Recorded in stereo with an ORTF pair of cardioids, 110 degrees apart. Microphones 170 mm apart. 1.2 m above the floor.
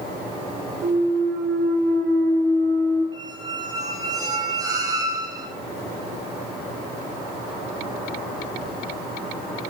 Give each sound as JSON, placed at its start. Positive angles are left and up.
{"t": 0.8, "sound": "a clunk", "azimuth_deg": -60, "distance_m": 3.0}
{"t": 3.1, "sound": "a squeak", "azimuth_deg": -20, "distance_m": 2.5}